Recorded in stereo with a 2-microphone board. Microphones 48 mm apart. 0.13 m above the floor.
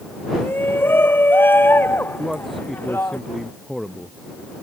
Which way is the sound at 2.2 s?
5° left (ahead or behind).